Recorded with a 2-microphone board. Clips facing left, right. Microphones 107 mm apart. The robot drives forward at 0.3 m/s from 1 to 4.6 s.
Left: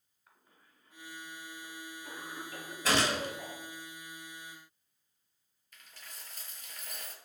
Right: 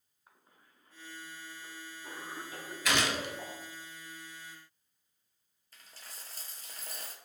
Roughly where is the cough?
Right.